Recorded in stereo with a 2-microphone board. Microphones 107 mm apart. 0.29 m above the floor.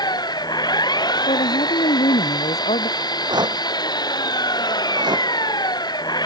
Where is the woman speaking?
80° left.